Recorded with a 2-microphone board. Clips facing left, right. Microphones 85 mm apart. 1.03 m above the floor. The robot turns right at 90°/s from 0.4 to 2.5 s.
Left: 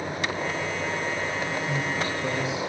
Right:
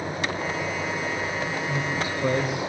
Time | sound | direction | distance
1.7 | a man speaking | 160° left | 4.5 m